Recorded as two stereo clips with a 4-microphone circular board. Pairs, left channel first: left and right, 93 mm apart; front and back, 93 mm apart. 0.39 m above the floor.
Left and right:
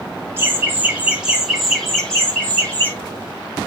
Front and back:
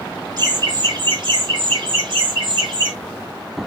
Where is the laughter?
150° right, 2 m; by 2.9 s 155° left, 2.5 m.